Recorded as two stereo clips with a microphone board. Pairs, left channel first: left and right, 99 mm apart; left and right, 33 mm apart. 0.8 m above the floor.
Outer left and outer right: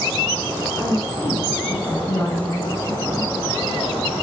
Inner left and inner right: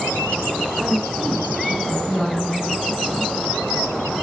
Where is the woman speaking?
30° left (ahead or behind), 5 m.